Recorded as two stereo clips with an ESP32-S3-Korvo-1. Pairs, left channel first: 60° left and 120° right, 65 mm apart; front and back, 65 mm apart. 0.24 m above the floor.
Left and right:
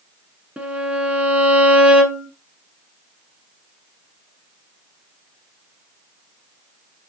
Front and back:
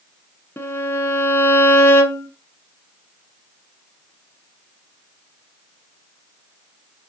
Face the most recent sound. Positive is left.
turn(degrees=-50)